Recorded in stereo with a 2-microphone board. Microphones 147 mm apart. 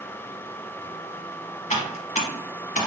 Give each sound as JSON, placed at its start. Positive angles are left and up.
{"t": 1.7, "sound": "typing on a keyboard", "side_deg": 55, "distance_m": 1.1}